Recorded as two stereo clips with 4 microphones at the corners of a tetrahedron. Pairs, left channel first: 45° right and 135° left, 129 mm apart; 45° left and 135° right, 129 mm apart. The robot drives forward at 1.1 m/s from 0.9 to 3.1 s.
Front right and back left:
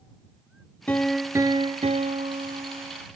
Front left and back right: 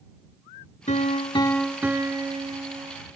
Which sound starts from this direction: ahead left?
A piano, at 0.9 s.